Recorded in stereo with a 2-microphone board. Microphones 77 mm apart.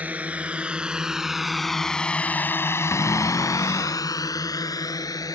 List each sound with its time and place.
0.0 s a drone: 20° right (ahead or behind); by 5.3 s 50° left (ahead or behind)
2.9 s a cupboard door: 35° left (ahead or behind)